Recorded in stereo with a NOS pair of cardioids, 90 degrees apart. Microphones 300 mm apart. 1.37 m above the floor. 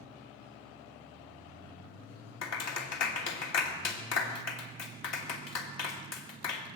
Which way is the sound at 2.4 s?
60° left.